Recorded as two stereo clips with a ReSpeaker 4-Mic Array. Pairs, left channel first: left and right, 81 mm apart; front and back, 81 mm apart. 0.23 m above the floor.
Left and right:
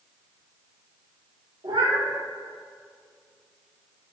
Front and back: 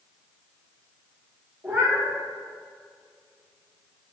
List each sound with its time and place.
1.6 s a cat meowing: 115° right, 2.5 m